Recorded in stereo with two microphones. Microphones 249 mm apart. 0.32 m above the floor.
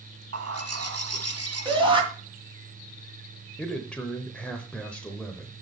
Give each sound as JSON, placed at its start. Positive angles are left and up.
{"t": 0.3, "sound": "a bird", "side_deg": -75, "distance_m": 0.9}
{"t": 1.6, "sound": "a shout", "side_deg": -20, "distance_m": 2.0}
{"t": 3.6, "sound": "a man speaking", "side_deg": 5, "distance_m": 0.9}